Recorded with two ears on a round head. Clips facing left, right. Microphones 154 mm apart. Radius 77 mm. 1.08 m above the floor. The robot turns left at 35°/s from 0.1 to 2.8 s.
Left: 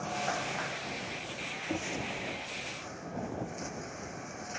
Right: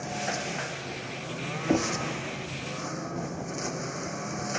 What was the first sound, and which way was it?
A lawn mower, 15° right.